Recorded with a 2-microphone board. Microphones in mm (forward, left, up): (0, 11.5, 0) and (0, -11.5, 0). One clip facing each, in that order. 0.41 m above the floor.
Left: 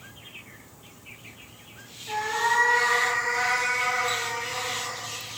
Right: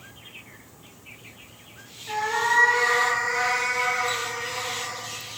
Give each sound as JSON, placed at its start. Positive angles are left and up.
{"t": 2.1, "sound": "a cat meowing", "side_deg": -30, "distance_m": 1.4}